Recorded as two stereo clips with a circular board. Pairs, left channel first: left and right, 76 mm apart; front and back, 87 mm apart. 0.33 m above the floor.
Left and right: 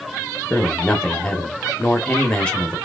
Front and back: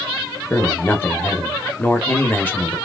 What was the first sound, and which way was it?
A man speaking, 35° left.